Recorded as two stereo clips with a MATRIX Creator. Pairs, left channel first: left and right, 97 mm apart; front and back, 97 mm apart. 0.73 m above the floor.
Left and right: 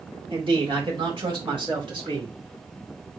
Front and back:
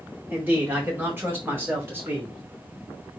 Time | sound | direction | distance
0.3 | a man speaking | 110° right | 2 m